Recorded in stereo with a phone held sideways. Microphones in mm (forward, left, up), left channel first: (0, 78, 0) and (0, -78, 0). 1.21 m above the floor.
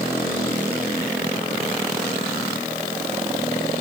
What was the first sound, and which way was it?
Only background noise.